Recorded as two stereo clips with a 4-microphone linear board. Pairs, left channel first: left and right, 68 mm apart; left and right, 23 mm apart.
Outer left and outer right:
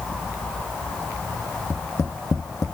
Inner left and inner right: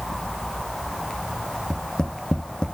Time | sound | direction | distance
1.7 | tapping | 45° left (ahead or behind) | 1.0 m